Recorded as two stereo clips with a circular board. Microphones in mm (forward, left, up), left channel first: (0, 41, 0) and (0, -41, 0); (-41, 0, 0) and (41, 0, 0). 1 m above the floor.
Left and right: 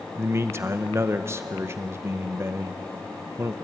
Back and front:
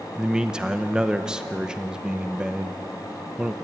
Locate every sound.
0.1 s a man speaking: 70° right, 0.7 m